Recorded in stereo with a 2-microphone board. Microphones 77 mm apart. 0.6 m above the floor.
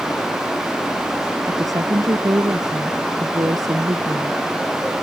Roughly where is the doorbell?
I don't hear a doorbell.